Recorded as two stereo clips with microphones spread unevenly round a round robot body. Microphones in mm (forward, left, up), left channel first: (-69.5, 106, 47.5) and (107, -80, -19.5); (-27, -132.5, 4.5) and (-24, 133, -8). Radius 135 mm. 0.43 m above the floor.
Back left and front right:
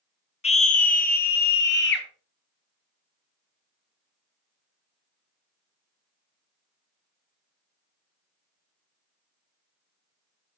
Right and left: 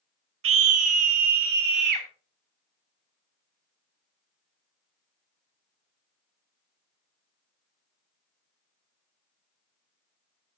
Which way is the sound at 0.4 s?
60° left.